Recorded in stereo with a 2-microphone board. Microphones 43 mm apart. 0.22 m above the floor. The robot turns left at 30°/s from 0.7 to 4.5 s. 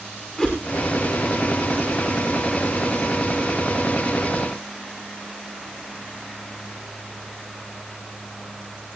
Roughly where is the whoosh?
Left.